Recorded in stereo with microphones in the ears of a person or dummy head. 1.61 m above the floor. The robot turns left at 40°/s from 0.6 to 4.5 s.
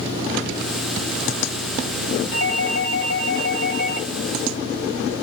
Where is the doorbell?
110° left, 1.9 m; by 4.1 s 40° left, 1.9 m.